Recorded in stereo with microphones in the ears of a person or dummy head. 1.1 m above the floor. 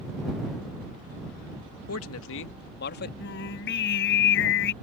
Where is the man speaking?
75° left (ahead or behind); by 3.1 s 50° left (ahead or behind).